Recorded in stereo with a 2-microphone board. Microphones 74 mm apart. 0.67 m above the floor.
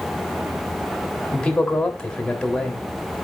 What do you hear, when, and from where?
1.3 s a man speaking: 15° left (ahead or behind), 1.5 m